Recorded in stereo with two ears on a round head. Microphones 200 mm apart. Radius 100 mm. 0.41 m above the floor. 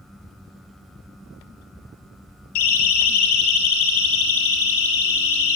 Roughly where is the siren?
Left.